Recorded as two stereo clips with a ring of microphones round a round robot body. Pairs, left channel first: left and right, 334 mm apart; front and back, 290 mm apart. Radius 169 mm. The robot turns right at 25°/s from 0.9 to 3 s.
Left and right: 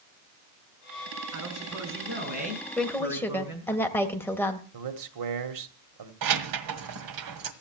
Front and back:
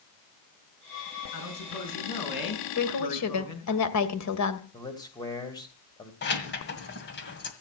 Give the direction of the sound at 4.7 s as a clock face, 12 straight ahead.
3 o'clock.